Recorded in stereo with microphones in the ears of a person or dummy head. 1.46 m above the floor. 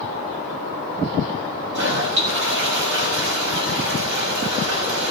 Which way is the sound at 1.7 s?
70° right (ahead or behind).